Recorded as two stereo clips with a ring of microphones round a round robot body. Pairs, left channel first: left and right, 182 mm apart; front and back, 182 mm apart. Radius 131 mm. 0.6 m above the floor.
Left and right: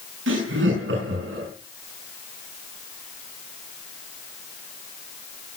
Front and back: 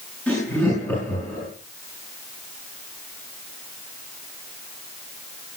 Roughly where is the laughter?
Right.